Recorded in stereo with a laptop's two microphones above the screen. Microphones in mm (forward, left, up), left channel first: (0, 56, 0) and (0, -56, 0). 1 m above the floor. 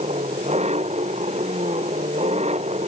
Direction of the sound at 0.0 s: 80° right.